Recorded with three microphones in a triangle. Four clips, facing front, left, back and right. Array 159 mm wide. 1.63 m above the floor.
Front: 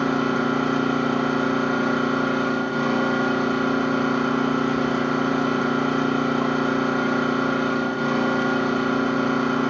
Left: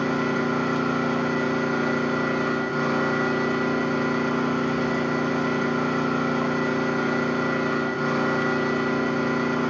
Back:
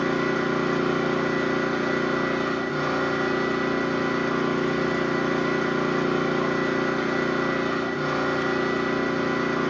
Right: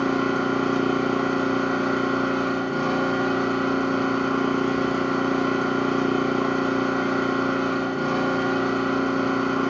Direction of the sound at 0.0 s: 35° right.